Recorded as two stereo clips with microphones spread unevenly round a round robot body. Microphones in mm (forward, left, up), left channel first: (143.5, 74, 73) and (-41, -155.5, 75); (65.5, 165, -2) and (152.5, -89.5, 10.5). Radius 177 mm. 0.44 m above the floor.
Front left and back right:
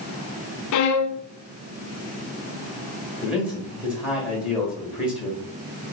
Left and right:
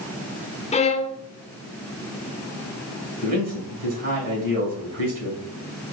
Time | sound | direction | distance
0.7 | a violin | 45° left | 0.5 m
3.2 | a man speaking | 45° right | 2 m